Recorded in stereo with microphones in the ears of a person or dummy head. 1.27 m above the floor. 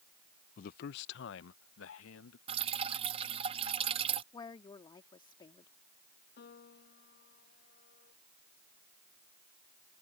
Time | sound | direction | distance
0.6 | a man speaking | 45° left (ahead or behind) | ?
2.5 | dripping | 35° right (ahead or behind) | ?
4.3 | a woman speaking | 25° left (ahead or behind) | ?
6.4 | a piano | 60° left (ahead or behind) | ?